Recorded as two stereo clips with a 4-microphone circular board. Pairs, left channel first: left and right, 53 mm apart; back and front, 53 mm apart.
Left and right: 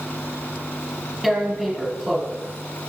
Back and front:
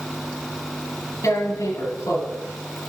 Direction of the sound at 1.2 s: 175° right.